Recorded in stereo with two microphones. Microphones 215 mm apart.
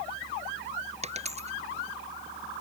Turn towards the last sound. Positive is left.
turn(degrees=-30)  # may be behind; listen again after turning